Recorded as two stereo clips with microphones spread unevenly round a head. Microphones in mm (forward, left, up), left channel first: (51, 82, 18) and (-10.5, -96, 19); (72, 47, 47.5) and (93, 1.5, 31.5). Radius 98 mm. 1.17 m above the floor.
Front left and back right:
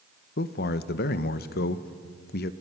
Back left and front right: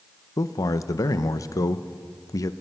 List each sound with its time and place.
0.4 s a man speaking: 115° left, 0.8 m